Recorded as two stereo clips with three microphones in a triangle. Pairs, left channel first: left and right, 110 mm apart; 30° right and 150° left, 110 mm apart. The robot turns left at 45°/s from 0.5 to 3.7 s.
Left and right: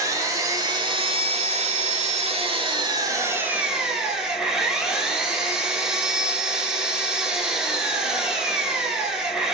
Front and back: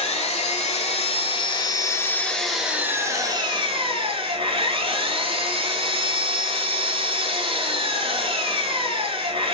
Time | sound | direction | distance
0.0 | an engine running | 30° right | 0.7 m